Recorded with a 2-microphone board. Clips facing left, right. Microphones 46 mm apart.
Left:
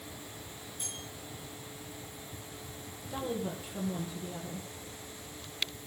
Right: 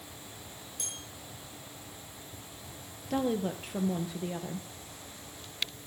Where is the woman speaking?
65° right (ahead or behind), 2.5 m.